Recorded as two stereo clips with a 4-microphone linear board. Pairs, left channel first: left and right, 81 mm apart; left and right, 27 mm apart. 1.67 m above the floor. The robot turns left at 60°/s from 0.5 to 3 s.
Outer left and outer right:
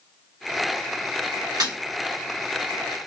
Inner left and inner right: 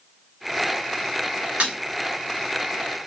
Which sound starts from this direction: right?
Breaking glass, at 1.6 s.